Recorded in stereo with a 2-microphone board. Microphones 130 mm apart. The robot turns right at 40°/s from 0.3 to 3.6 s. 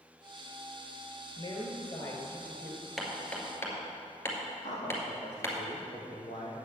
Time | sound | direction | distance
1.4 | a woman speaking | 120° left | 2 m
3.0 | hammering | centre (ahead or behind) | 2 m
4.6 | a man speaking | 70° left (ahead or behind) | 4 m